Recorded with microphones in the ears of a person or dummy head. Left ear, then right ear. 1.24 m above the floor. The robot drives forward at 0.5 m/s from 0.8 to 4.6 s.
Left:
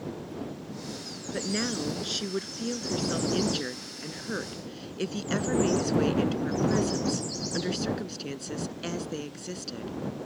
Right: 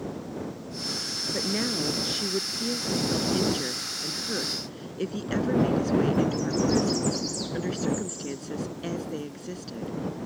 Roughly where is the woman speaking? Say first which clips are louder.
Even; left.